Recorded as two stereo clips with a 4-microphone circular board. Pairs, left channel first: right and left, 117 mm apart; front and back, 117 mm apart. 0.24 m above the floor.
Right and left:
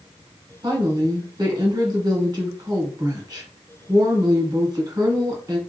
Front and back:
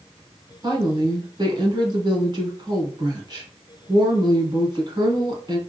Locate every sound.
0.6 s a woman speaking: 135° left, 2.0 m